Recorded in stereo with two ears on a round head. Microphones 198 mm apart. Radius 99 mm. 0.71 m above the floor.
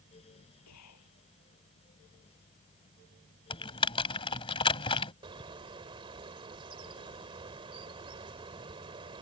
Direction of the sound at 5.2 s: 20° right (ahead or behind).